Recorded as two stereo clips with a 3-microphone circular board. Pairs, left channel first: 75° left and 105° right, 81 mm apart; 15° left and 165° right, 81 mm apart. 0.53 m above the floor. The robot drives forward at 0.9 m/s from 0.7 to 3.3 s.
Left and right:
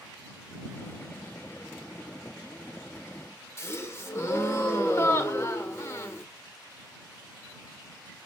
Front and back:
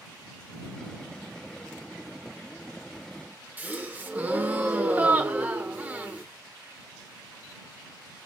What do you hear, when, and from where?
3.6 s a gasp: 130° left, 0.8 m